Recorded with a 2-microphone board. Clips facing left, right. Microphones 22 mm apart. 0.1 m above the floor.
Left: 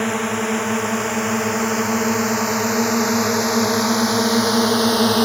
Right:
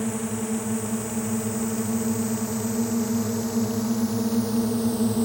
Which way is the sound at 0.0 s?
55° left (ahead or behind).